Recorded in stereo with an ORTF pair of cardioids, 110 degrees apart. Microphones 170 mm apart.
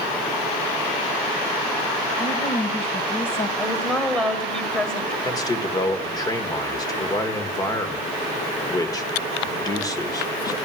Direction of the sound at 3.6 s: Straight ahead.